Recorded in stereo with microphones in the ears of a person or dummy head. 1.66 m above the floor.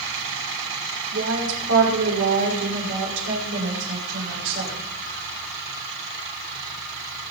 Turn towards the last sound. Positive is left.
turn(degrees=-65)  # may be behind; listen again after turning